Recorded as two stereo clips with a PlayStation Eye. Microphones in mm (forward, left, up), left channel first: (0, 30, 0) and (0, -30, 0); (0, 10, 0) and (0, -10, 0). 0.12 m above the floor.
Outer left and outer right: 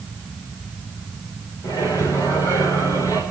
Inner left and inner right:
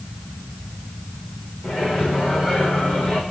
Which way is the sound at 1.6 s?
80° left.